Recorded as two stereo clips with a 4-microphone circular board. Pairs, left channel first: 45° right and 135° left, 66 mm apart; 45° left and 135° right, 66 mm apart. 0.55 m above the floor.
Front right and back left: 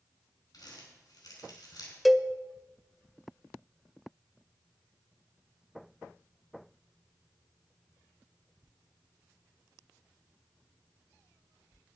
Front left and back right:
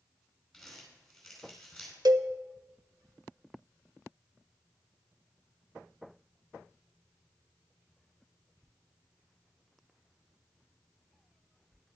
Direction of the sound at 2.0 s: 135° right.